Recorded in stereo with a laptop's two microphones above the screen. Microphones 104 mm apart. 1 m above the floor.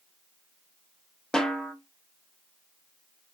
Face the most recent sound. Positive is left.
turn(degrees=5)  # may be behind; listen again after turning